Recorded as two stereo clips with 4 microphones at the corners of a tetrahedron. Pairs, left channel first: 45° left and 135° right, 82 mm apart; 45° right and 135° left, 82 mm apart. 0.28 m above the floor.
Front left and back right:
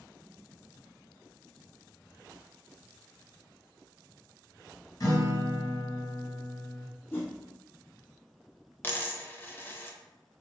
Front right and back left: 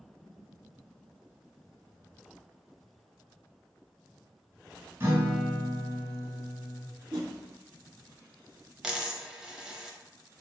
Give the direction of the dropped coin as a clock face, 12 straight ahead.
10 o'clock.